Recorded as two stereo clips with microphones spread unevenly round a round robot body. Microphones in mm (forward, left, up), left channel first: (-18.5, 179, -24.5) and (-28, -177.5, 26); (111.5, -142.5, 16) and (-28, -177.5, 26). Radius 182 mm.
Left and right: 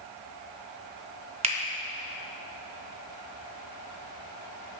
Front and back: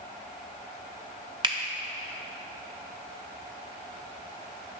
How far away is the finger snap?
About 0.6 m.